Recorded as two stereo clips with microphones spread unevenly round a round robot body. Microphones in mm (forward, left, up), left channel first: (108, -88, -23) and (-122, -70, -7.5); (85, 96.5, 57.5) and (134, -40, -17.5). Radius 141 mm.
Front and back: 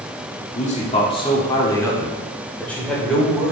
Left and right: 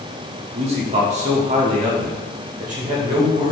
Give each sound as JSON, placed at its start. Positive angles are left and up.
{"t": 0.5, "sound": "a man speaking", "azimuth_deg": -55, "distance_m": 1.2}